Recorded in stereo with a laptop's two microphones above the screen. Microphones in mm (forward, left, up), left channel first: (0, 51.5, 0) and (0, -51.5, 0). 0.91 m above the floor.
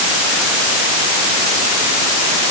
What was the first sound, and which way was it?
Only background noise.